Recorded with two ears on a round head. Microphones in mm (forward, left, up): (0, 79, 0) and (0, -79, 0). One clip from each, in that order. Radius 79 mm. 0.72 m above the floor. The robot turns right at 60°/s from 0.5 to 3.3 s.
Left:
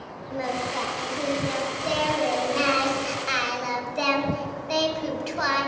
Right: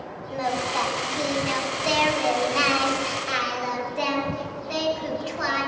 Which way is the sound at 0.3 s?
135° right.